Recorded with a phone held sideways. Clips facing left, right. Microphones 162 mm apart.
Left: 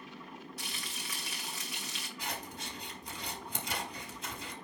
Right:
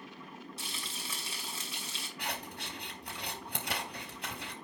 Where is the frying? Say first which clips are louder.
Even; 30° right (ahead or behind), 4 m.